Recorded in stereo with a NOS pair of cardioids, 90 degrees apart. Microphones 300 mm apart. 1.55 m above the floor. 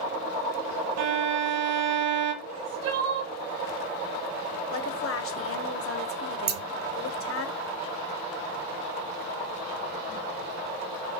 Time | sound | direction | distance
1.0 | a violin | 60° right | 0.8 m
2.4 | crying | 60° right | 0.9 m
4.7 | a woman speaking | 50° left | 0.8 m
6.5 | scissors | 35° right | 0.6 m